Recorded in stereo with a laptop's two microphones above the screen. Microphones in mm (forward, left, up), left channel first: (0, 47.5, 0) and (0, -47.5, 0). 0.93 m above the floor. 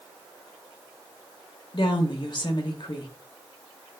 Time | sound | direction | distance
1.7 | a woman speaking | 50° left (ahead or behind) | 0.6 m